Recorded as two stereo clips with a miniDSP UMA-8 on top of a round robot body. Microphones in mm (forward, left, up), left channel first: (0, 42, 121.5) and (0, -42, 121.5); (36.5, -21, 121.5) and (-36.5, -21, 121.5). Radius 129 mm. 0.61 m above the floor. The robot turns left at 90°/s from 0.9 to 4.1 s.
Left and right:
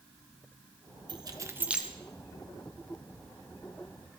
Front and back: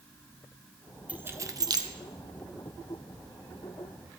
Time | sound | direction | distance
1.1 | keys jangling | 110° right | 1.0 m